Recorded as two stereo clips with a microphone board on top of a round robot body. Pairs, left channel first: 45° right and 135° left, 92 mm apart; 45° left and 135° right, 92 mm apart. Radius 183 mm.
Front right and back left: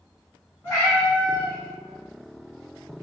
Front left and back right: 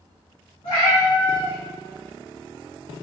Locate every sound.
0.6 s a cat meowing: 25° left, 0.9 m